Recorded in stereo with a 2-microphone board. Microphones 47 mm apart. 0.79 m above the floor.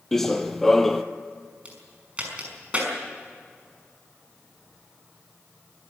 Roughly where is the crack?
Right.